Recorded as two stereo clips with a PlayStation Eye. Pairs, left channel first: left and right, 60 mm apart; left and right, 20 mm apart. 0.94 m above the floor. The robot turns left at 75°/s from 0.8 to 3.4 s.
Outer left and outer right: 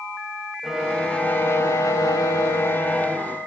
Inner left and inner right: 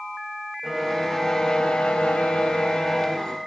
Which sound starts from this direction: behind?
A violin, at 0.6 s.